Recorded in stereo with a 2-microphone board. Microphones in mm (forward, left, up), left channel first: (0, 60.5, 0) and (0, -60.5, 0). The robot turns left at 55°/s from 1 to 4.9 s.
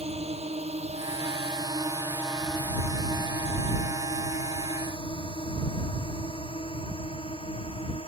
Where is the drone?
55° right (ahead or behind); by 8.1 s 50° left (ahead or behind).